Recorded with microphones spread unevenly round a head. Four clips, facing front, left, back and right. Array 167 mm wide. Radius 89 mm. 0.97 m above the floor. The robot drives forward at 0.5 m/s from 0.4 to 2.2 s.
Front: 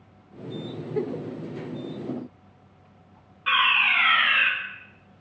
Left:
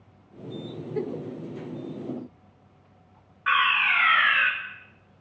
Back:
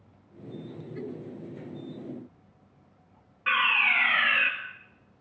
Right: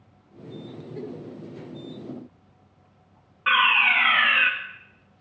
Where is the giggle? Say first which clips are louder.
Left 6 dB, front 10 dB; 30° left, 1.0 m; by 1.2 s 40° left, 0.9 m.